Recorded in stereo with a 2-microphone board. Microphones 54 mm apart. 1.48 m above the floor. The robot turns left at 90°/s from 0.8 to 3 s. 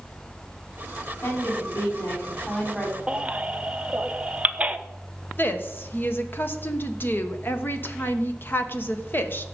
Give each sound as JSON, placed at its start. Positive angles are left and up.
{"t": 1.2, "sound": "a woman speaking", "azimuth_deg": 140, "distance_m": 5.5}
{"t": 3.1, "sound": "a baby crying", "side_deg": -25, "distance_m": 0.7}
{"t": 5.4, "sound": "a woman speaking", "side_deg": 40, "distance_m": 1.2}